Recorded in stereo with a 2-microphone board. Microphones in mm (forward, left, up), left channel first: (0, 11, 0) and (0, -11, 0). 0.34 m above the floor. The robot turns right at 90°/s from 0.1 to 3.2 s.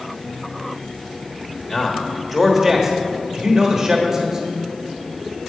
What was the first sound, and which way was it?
A man speaking, 15° left (ahead or behind).